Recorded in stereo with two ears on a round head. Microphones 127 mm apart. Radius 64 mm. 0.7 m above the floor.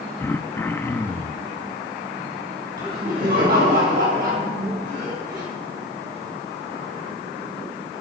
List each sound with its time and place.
0.2 s throat clearing: 15° left (ahead or behind), 0.6 m
2.8 s laughter: 75° right (ahead or behind), 4.5 m